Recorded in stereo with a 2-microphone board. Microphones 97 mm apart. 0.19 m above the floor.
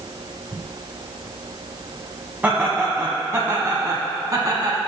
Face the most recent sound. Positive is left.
turn(degrees=-40)  # may be behind; listen again after turning